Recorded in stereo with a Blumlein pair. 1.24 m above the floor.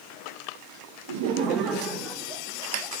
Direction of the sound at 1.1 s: 55° right.